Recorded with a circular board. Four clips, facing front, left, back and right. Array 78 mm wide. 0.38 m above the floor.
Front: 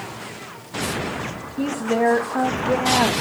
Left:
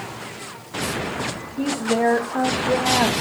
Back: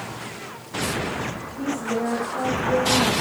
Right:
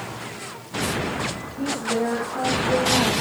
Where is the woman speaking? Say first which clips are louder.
Left 4 dB, front 5 dB; 40° left, 1.3 m.